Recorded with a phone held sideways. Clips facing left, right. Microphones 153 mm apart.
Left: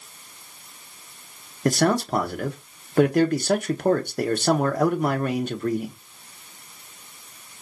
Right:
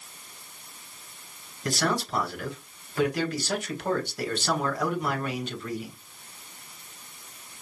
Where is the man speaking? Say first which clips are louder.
Left 7 dB; 50° left (ahead or behind), 0.8 m.